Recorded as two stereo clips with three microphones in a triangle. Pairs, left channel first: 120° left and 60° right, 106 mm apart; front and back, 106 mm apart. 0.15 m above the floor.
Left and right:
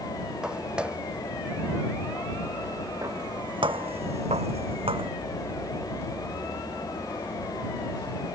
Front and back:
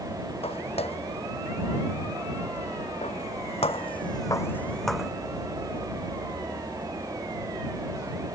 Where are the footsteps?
20° left; by 5.1 s 95° right.